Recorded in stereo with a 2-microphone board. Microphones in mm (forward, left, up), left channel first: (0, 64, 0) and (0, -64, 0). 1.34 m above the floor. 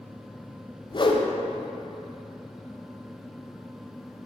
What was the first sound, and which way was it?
A whoosh, 40° left (ahead or behind).